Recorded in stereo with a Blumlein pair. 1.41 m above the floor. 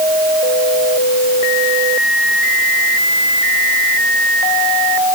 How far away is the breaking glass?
No breaking glass in this recording.